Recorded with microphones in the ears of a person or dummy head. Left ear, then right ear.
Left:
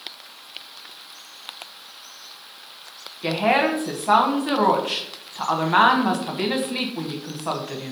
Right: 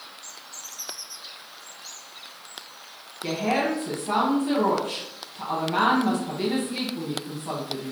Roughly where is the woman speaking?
Left.